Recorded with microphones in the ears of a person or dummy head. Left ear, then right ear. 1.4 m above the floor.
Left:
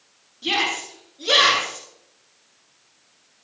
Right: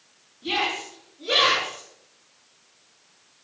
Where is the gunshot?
I don't hear a gunshot.